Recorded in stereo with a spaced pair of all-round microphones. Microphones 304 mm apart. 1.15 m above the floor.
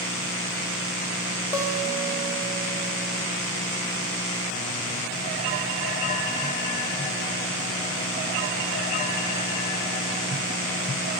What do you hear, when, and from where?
1.5 s a guitar: 10° right (ahead or behind), 1.1 m